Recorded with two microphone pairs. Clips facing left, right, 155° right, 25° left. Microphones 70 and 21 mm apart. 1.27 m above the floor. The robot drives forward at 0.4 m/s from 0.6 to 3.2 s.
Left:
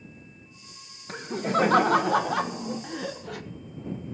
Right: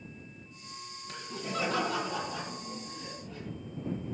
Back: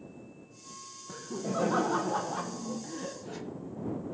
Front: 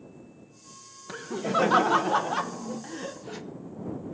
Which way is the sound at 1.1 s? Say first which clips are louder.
Left 11 dB, front 7 dB; 45° left.